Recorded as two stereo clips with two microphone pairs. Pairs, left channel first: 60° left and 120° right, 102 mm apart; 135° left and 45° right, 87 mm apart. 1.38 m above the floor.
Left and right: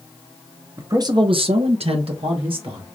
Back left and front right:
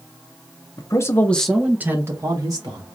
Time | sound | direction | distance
0.8 | a man speaking | straight behind | 0.9 m